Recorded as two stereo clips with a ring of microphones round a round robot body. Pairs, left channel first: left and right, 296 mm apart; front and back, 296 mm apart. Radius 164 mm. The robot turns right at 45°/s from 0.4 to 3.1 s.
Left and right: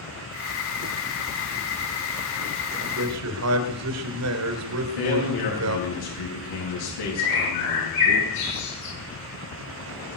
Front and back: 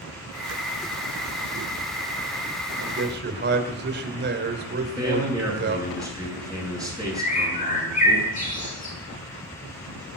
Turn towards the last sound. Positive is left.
turn(degrees=65)